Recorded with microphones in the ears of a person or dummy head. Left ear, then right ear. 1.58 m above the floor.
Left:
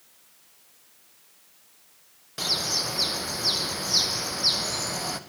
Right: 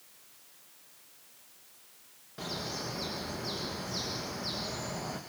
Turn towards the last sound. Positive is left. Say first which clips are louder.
# left 12 dB
turn(degrees=80)